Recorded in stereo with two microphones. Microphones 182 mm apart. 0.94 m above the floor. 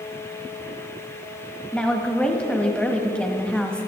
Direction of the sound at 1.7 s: 5° left (ahead or behind).